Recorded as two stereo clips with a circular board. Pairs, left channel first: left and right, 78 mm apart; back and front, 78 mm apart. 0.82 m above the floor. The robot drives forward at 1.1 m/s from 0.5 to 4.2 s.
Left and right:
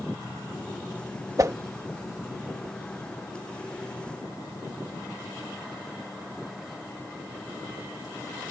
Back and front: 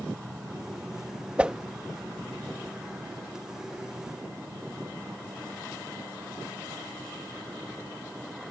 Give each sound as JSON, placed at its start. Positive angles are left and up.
{"t": 1.4, "sound": "a whoosh", "azimuth_deg": -65}